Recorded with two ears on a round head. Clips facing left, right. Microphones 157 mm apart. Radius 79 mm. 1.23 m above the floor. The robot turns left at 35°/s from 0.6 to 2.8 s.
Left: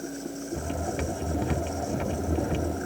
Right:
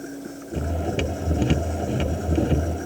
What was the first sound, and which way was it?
Only background noise.